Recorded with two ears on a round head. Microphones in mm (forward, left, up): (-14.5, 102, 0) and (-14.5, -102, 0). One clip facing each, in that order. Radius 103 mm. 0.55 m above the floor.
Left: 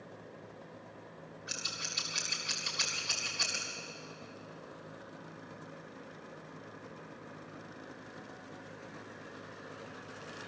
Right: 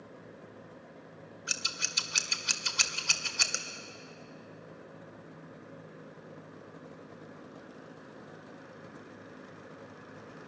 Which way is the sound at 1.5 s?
65° right (ahead or behind).